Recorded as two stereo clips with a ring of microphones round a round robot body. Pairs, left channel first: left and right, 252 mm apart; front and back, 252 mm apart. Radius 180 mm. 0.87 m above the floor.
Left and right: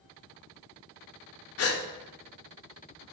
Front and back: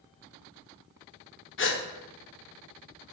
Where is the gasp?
50° left, 0.6 m.